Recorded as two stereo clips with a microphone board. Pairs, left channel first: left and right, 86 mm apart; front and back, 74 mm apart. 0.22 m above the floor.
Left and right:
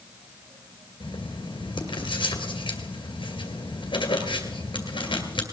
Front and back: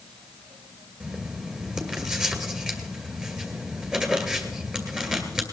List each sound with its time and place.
1.0 s writing: 100° left, 2 m